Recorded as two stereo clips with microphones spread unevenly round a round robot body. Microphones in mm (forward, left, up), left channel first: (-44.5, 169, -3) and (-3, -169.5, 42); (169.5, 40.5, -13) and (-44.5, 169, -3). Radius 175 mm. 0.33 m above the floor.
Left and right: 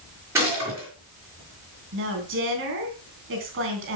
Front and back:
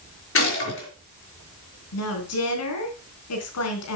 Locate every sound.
0.3 s a gunshot: straight ahead, 5.5 m
1.9 s a woman speaking: 25° right, 3.5 m